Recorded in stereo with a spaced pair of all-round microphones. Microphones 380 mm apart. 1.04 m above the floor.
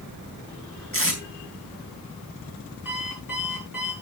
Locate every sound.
0.9 s tape being pulled: 35° left (ahead or behind), 4.5 m
2.9 s an alarm clock: 55° left (ahead or behind), 7.5 m